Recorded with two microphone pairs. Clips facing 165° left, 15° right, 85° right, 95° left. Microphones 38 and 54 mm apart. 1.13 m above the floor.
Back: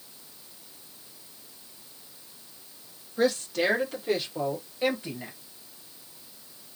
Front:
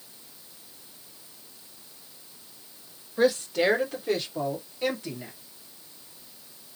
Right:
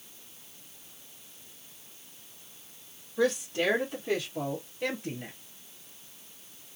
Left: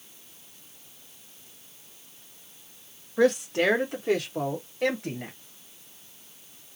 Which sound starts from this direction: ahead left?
A woman speaking, at 3.2 s.